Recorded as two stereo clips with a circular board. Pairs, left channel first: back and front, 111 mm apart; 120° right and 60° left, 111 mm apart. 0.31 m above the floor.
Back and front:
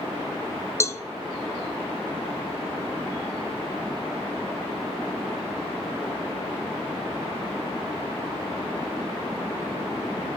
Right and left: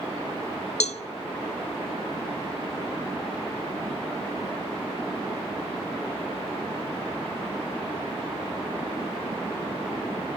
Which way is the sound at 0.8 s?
115° right.